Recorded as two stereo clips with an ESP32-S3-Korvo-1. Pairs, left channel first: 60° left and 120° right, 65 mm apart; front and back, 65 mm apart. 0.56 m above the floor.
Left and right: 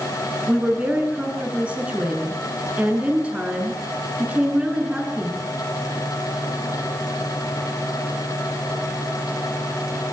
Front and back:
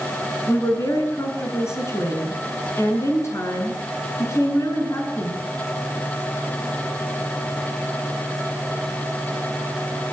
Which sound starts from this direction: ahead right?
A woman speaking, at 0.5 s.